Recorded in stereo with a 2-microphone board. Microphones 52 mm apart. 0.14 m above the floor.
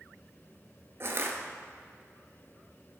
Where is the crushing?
55° right (ahead or behind), 0.9 m.